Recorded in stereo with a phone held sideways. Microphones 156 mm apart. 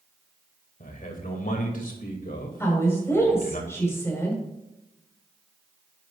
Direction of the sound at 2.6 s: 15° left (ahead or behind).